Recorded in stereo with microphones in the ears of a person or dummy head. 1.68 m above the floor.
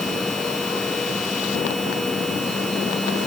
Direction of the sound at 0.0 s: 5° left (ahead or behind).